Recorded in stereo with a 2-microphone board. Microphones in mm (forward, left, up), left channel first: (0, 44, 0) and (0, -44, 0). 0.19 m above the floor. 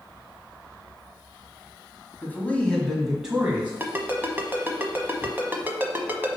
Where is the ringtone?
25° right (ahead or behind), 0.9 m.